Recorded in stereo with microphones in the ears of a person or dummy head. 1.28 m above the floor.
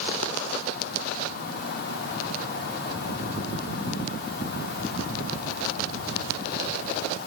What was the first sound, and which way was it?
Only background noise.